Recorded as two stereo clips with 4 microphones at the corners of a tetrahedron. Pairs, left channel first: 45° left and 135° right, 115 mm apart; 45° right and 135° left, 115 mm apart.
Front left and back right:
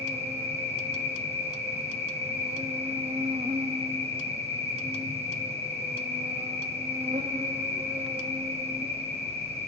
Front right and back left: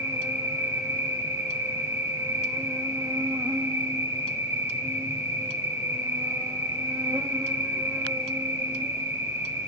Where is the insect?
160° right, 0.8 m.